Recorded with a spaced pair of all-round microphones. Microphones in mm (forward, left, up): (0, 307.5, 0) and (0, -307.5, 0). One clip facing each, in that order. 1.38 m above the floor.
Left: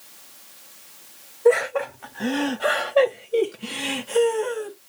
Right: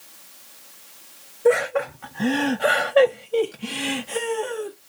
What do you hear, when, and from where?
1.4 s laughter: 40° right (ahead or behind), 1.0 m; by 4.7 s centre (ahead or behind), 1.2 m